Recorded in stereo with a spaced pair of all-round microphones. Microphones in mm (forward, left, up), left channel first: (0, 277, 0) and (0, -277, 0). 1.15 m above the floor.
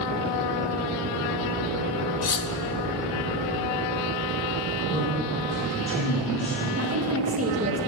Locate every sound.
2.2 s cutlery clinking: 70° left (ahead or behind), 0.7 m
4.9 s a man speaking: centre (ahead or behind), 5 m
6.8 s a woman speaking: 25° right (ahead or behind), 1.7 m